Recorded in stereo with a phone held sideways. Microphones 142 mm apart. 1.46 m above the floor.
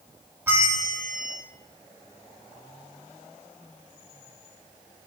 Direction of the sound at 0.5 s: 15° right (ahead or behind).